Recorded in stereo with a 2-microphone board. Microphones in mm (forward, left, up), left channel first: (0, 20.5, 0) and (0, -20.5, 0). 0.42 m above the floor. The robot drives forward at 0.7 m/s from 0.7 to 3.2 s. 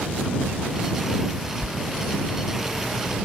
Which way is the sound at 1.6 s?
55° right (ahead or behind).